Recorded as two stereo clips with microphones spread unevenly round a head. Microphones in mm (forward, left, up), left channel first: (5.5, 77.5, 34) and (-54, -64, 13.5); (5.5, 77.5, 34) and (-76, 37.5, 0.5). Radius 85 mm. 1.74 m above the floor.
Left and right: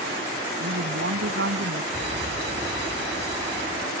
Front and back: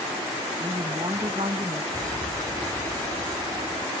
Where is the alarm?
85° right.